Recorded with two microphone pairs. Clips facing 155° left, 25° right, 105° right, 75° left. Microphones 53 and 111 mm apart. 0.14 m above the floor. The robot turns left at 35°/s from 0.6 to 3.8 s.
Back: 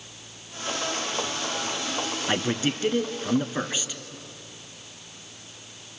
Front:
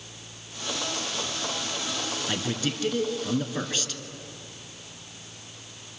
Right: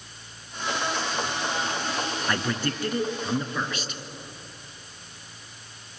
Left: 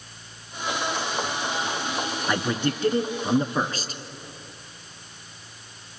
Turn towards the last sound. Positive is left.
turn(degrees=90)